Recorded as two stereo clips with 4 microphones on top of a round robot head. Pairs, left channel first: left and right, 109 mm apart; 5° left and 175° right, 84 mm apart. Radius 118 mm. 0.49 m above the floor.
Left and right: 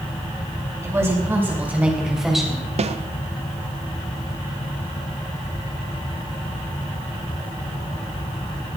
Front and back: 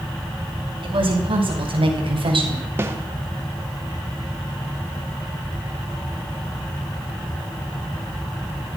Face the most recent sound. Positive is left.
turn(degrees=-115)